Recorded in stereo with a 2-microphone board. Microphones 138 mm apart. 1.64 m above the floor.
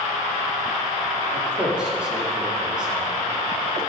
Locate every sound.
1.3 s a man speaking: 5° right (ahead or behind), 4 m